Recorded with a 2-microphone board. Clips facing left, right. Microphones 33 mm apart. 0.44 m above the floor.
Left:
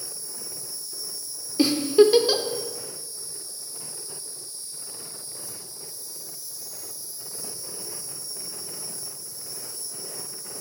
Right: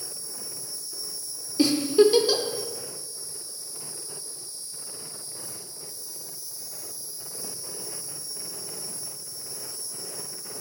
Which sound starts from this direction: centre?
A giggle, at 1.6 s.